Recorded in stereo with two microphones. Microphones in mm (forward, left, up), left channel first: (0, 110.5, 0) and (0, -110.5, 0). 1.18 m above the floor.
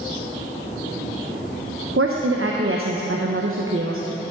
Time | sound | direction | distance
2.0 | a woman speaking | 75° right (ahead or behind) | 0.7 m